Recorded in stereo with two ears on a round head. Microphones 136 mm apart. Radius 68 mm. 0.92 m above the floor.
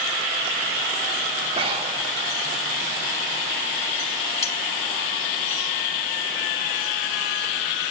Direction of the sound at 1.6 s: 40° right (ahead or behind).